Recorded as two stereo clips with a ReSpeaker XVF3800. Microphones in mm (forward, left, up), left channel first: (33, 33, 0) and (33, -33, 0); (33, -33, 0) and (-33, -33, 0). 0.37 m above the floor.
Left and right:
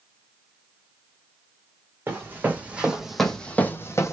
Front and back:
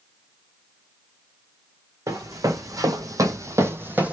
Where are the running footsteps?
145° right, 1.0 m; by 4.1 s 115° left, 0.7 m.